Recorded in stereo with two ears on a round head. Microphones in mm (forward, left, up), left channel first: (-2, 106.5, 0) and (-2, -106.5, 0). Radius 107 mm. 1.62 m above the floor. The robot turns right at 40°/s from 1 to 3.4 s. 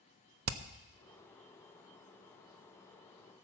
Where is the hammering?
60° right (ahead or behind), 0.6 m.